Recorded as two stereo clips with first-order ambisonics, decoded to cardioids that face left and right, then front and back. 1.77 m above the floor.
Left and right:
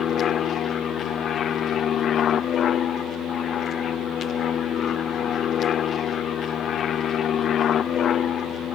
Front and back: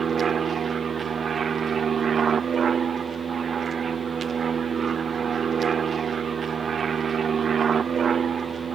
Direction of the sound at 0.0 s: 130° left.